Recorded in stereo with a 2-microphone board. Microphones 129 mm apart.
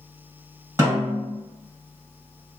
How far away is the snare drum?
About 1.4 m.